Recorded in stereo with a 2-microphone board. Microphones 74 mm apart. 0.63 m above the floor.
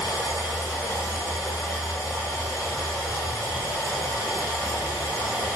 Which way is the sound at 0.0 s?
55° left (ahead or behind).